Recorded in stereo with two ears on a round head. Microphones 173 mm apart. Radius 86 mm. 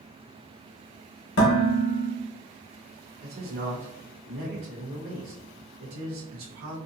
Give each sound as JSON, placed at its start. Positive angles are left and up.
{"t": 1.4, "sound": "dishes clattering", "side_deg": 60, "distance_m": 1.1}
{"t": 3.2, "sound": "a man speaking", "side_deg": -75, "distance_m": 0.8}